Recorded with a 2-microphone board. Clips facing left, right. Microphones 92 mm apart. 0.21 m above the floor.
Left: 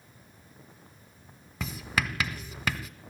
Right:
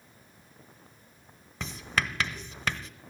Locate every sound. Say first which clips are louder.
1.6 s writing: even; 5° left (ahead or behind), 1.6 m